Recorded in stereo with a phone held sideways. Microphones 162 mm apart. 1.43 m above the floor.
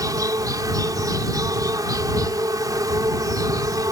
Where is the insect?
25° right (ahead or behind).